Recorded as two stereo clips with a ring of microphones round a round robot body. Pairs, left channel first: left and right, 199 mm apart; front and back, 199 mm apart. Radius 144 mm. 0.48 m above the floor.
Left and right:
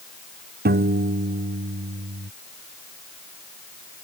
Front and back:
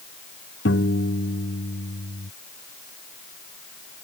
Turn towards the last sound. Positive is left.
turn(degrees=-50)